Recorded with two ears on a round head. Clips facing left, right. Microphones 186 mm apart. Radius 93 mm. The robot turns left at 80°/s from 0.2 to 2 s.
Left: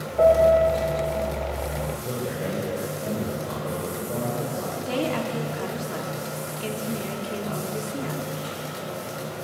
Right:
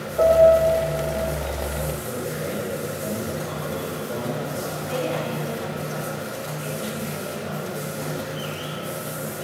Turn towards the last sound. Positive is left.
turn(degrees=60)  # may be behind; listen again after turning